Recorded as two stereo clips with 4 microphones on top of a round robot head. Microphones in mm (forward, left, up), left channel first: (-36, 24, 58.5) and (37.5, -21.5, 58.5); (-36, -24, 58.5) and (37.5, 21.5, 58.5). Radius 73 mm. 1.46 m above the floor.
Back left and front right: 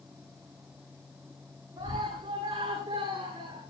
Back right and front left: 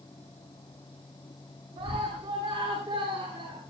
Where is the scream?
15° left, 10 m.